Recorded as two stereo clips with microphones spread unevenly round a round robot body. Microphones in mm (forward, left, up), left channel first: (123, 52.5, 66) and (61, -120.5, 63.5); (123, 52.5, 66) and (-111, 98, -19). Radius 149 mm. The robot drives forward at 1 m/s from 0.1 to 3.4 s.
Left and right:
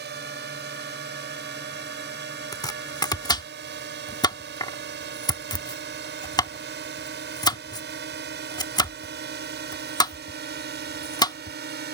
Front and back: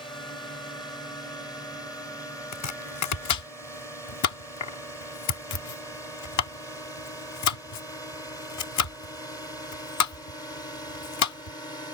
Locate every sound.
0.0 s a drone: 90° right; by 11.9 s 95° right
2.5 s chopping: straight ahead